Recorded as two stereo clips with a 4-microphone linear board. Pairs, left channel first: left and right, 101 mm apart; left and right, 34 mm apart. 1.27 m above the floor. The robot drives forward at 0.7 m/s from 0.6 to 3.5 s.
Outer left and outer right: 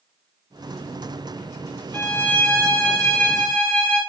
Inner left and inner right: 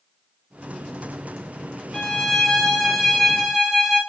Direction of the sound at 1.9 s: 15° left (ahead or behind).